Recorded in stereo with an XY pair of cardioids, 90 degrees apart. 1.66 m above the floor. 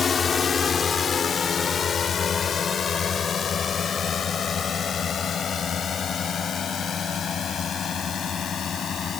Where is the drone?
50° left; by 9.2 s 60° left.